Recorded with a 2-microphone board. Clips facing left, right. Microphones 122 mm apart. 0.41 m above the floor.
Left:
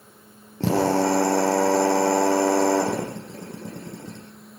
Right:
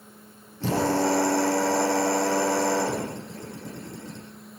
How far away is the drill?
About 8.5 m.